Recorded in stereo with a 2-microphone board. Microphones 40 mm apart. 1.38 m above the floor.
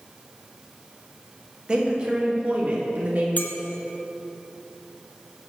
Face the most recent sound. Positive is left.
turn(degrees=50)  # may be behind; listen again after turning